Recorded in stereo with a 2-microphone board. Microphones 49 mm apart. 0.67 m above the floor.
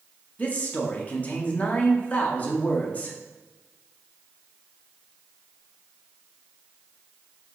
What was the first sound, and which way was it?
A man speaking, 30° left (ahead or behind).